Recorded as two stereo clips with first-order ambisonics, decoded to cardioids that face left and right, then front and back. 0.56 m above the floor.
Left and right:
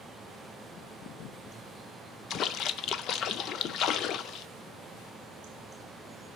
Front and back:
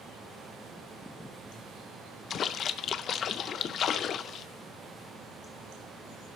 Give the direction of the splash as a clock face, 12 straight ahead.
10 o'clock.